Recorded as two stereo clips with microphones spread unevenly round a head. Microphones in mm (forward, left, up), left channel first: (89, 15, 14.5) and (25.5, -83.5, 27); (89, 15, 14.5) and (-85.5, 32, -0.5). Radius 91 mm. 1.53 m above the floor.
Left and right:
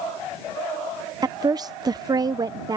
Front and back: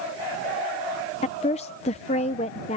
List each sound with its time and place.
1.2 s a woman speaking: 65° right